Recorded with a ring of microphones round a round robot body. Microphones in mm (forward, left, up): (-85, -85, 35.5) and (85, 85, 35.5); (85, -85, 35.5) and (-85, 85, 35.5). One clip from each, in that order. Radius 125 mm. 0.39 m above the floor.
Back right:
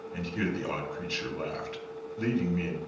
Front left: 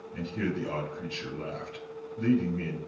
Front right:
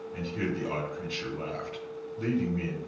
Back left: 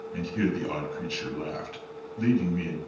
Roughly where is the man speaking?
Behind.